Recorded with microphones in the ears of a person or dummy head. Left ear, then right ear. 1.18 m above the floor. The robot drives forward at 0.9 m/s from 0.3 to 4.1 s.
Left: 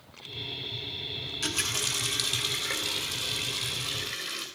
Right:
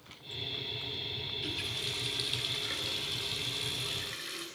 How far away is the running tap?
About 1.4 m.